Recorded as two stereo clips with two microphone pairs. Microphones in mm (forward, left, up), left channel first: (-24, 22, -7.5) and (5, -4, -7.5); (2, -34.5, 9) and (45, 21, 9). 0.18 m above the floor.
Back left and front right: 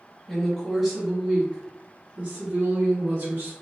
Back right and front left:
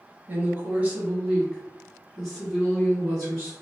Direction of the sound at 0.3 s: 55° left.